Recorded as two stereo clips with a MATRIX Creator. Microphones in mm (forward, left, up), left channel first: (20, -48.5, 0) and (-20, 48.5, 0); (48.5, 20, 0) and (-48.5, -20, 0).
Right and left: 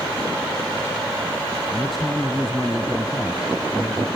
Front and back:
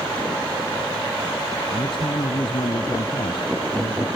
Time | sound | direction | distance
1.7 | a man speaking | 25° left | 1.9 m